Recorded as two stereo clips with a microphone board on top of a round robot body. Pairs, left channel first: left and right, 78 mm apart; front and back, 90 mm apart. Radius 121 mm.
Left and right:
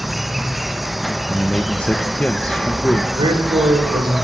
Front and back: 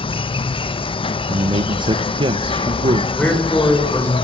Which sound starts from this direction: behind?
A man speaking, at 1.3 s.